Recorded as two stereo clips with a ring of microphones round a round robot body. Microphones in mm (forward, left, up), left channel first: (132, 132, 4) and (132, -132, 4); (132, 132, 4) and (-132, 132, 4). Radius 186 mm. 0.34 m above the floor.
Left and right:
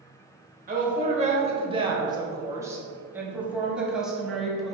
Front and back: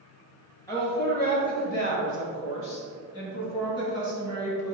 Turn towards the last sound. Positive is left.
turn(degrees=0)